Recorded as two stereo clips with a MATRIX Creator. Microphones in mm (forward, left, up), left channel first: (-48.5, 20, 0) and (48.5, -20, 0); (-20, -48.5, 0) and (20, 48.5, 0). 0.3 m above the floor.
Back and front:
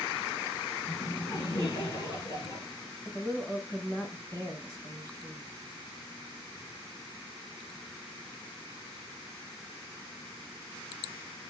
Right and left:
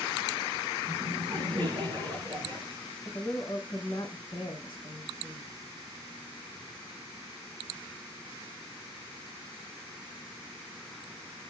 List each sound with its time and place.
0.9 s laughter: 110° left, 4 m
3.0 s a woman speaking: 130° right, 1.3 m